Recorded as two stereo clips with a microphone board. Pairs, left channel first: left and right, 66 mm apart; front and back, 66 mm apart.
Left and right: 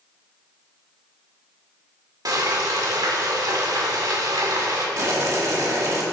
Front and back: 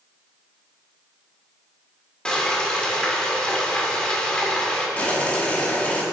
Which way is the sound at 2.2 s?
75° right.